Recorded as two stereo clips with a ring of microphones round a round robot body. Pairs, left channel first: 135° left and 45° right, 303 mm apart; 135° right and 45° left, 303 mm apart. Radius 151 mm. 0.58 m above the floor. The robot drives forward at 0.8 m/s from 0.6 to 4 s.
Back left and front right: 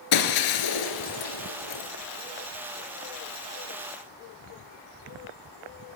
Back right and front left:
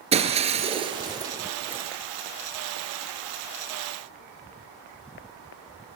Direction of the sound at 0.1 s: 115° left.